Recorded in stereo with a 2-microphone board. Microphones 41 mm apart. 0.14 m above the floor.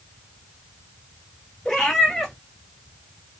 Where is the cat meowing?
15° left (ahead or behind), 1.1 m.